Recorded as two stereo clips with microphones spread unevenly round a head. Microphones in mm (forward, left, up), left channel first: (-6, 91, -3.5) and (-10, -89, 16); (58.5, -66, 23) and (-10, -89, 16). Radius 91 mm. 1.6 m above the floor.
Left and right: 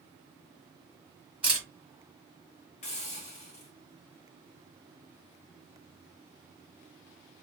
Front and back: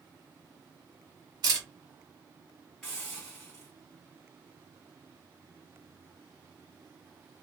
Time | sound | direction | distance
1.4 | a camera shutter | 165° right | 1.9 m
2.8 | a hiss | 105° left | 1.3 m